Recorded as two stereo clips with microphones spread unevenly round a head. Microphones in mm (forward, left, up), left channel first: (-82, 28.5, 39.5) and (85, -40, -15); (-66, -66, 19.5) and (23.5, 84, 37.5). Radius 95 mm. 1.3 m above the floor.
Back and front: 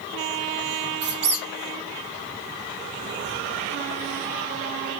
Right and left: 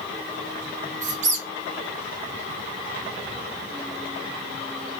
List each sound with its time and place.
1.0 s a squeak: 15° left, 0.5 m